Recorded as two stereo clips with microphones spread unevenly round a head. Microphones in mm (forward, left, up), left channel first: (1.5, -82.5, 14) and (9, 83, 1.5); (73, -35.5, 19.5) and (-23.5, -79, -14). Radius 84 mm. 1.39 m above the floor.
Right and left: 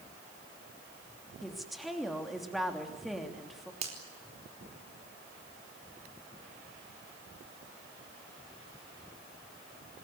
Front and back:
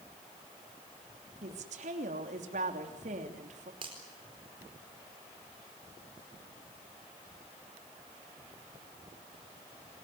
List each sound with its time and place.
1.4 s a woman speaking: 175° left, 3 m
3.8 s a finger snap: 140° left, 4.5 m